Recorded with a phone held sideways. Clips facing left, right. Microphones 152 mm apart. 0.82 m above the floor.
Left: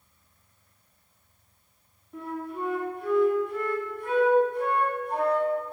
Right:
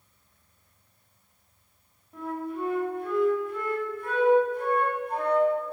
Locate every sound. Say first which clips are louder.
2.1 s a flute: right 2 dB; 5° right (ahead or behind), 3.5 m